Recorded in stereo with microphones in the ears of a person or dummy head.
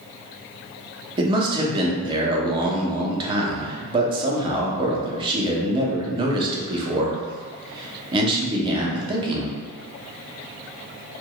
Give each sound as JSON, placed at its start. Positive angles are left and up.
{"t": 1.2, "sound": "a man speaking", "side_deg": -25, "distance_m": 0.8}